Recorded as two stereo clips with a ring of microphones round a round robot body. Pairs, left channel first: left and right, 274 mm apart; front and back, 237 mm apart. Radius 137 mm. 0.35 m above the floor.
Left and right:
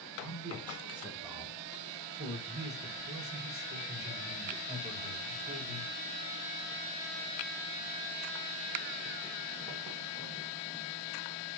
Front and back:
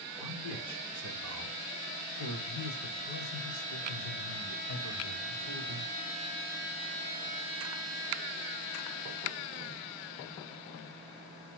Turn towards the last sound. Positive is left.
turn(degrees=-10)